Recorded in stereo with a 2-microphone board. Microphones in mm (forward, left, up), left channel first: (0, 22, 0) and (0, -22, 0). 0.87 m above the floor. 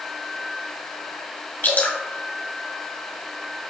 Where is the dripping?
60° left (ahead or behind), 1.8 m.